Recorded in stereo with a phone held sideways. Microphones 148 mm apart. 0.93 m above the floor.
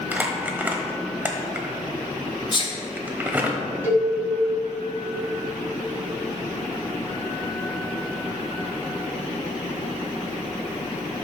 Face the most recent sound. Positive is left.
turn(degrees=-20)  # may be behind; listen again after turning